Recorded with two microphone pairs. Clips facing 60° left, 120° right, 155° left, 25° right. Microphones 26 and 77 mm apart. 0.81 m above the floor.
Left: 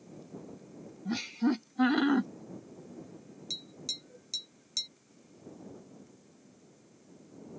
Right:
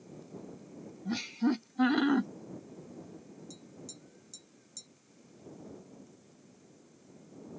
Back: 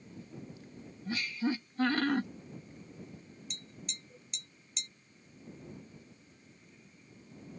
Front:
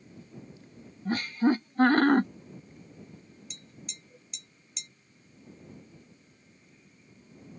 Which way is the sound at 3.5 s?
65° left.